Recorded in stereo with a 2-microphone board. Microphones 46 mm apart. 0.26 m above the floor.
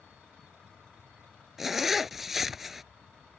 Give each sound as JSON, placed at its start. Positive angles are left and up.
{"t": 1.6, "sound": "a zipper", "side_deg": -5}